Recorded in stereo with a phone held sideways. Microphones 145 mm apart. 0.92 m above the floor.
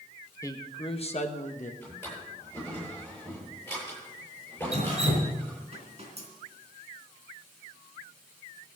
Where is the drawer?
15° left (ahead or behind), 10 m.